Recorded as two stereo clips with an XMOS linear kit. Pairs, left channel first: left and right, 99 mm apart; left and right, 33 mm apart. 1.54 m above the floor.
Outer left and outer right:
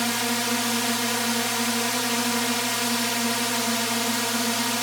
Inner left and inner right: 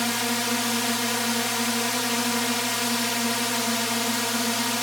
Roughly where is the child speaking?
I don't hear a child speaking.